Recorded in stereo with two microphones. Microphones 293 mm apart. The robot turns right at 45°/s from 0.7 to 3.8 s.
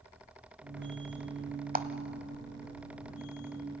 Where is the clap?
30° right (ahead or behind), 1.0 m.